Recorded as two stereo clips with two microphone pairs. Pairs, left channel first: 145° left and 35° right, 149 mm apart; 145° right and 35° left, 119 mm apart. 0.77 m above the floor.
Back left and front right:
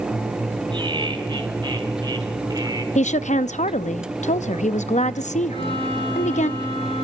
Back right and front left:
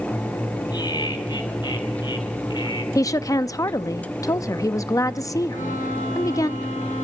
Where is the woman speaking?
160° left, 0.6 m.